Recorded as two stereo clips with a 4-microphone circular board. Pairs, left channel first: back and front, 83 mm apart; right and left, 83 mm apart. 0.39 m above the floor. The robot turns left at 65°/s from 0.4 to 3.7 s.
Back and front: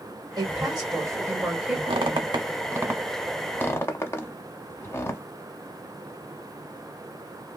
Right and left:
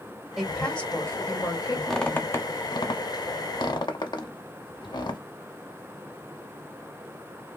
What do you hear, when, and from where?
0.4 s a woman speaking: 5° left, 1.9 m; by 1.8 s 85° right, 1.9 m
1.9 s a squeak: straight ahead, 0.6 m; by 5.2 s 120° right, 0.6 m